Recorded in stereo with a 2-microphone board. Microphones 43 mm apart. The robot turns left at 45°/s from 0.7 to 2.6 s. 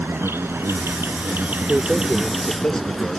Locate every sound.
0.0 s an insect: 100° right; by 3.2 s 175° left
1.7 s a man speaking: 155° right; by 3.2 s 160° left